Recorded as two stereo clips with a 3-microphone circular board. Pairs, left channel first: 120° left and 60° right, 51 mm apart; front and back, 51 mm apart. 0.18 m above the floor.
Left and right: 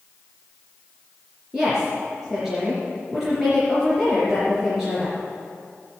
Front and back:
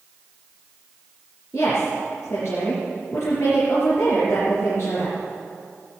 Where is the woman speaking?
20° left, 4 m.